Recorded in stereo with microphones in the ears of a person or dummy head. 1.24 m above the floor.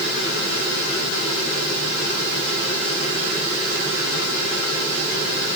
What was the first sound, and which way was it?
Only background noise.